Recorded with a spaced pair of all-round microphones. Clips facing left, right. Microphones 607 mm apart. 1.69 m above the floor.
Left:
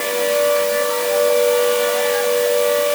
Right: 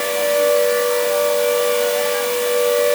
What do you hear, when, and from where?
Only background noise.